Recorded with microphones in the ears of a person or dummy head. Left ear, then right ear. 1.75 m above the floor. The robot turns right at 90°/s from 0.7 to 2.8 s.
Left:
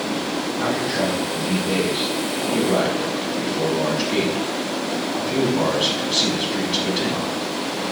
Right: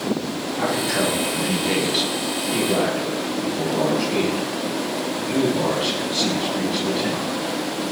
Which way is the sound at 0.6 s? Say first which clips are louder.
Right 2 dB; 155° right.